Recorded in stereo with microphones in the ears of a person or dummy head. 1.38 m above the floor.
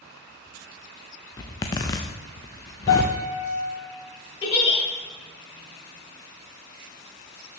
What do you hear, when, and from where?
1.4 s a zipper: 20° left (ahead or behind), 0.6 m
2.9 s a piano: 70° left (ahead or behind), 2.5 m
4.4 s a giggle: 25° left (ahead or behind), 1.6 m